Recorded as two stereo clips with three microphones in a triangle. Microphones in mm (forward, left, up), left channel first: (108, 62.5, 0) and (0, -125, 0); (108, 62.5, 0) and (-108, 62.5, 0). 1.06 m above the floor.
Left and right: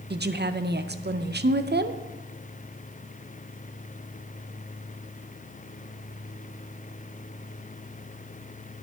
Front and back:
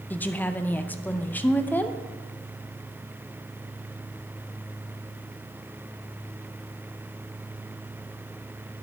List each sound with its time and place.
0.1 s a woman speaking: 80° right, 0.6 m